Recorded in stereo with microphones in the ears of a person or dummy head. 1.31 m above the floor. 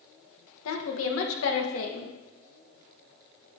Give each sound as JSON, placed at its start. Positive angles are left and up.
{"t": 0.7, "sound": "a woman speaking", "side_deg": 70, "distance_m": 1.5}